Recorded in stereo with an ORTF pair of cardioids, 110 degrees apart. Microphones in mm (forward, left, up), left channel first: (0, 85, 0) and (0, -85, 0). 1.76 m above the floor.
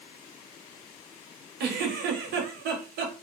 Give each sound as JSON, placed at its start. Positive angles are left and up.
{"t": 1.6, "sound": "a giggle", "azimuth_deg": -70, "distance_m": 1.0}